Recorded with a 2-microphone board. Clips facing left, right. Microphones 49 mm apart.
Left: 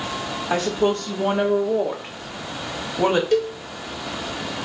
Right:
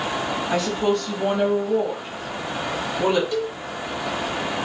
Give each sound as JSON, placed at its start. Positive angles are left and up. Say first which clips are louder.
{"t": 0.5, "sound": "a woman speaking", "louder": "left 2 dB", "side_deg": 50, "distance_m": 1.7}
{"t": 3.3, "sound": "a cowbell", "louder": "left 5 dB", "side_deg": 65, "distance_m": 0.6}